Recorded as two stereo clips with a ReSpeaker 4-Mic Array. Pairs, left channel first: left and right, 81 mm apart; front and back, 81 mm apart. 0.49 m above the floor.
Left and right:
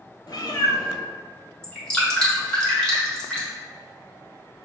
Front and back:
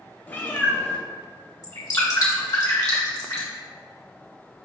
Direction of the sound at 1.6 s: 15° left.